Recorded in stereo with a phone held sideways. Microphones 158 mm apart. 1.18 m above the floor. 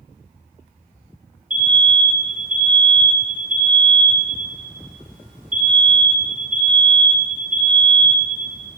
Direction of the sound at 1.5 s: 55° right (ahead or behind).